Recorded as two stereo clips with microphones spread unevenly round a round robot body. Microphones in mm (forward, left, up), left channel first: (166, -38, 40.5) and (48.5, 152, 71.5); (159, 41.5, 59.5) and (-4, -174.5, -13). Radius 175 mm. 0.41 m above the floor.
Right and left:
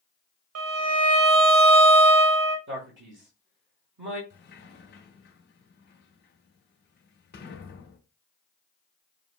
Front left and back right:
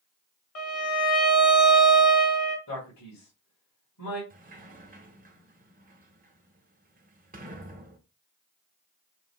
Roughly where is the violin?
Behind left.